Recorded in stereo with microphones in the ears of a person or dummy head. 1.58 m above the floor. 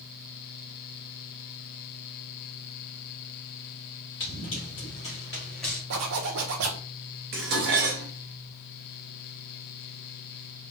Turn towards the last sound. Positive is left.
turn(degrees=-50)  # may be behind; listen again after turning